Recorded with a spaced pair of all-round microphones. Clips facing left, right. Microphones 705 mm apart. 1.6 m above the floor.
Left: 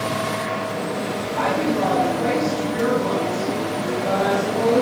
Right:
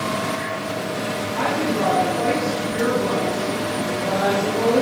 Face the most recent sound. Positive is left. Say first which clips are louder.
# left 1 dB
turn(degrees=15)  # may be behind; listen again after turning